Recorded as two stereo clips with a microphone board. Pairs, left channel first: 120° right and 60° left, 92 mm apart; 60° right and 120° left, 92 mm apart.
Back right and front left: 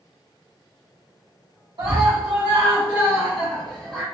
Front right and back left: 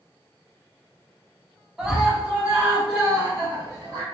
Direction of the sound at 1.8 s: 35° left.